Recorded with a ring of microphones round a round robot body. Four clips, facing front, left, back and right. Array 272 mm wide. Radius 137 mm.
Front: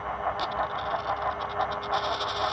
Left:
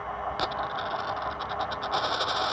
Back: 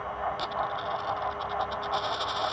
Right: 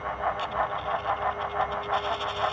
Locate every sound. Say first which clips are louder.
0.3 s a dropped coin: right 2 dB, front 1 dB; 90° left